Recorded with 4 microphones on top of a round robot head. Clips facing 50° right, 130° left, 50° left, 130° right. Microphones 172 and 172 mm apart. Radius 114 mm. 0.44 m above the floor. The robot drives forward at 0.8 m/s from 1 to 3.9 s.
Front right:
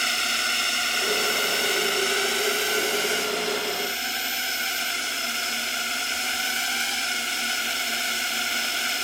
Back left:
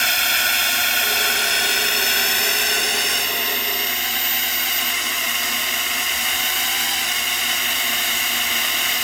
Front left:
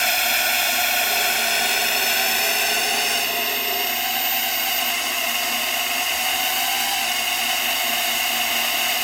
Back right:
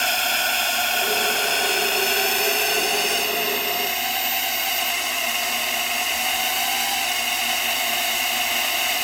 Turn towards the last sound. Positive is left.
turn(degrees=140)